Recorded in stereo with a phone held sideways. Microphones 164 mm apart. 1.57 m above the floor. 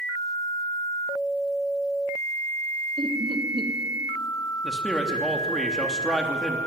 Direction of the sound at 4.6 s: Centre (ahead or behind).